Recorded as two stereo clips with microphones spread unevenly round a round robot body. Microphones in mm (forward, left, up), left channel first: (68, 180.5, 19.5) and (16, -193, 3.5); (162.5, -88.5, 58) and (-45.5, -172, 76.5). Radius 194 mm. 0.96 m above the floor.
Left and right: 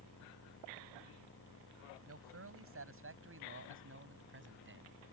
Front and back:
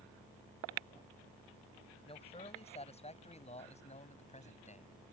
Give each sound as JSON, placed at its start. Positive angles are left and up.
{"t": 2.1, "sound": "a man speaking", "azimuth_deg": -45}